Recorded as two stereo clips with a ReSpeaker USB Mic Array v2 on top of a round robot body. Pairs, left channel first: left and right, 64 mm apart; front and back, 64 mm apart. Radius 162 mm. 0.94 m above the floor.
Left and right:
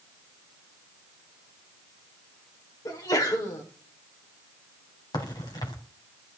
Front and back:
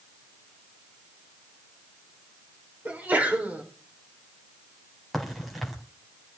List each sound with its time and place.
2.9 s a sneeze: 115° left, 3.5 m
5.1 s a crack: 90° left, 3 m